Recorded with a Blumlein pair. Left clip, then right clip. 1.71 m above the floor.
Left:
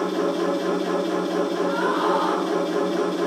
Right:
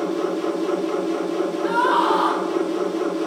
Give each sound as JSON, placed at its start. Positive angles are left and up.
{"t": 0.0, "sound": "a machine running", "azimuth_deg": 45, "distance_m": 4.0}
{"t": 1.6, "sound": "a scream", "azimuth_deg": -65, "distance_m": 1.5}